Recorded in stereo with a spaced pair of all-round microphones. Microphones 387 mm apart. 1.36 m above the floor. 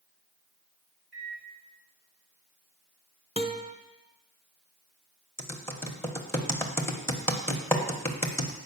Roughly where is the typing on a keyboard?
Centre.